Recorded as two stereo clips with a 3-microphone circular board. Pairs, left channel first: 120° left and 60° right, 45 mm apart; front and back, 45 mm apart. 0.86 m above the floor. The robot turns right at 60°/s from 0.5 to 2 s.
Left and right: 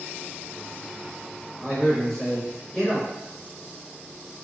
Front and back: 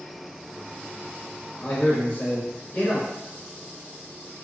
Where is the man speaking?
15° left, 1.3 m; by 3.1 s 40° left, 1.3 m.